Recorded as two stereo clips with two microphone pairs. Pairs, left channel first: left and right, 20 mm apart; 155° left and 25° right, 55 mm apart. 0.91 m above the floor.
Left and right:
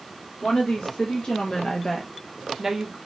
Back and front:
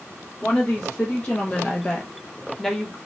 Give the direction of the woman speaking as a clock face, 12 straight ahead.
9 o'clock.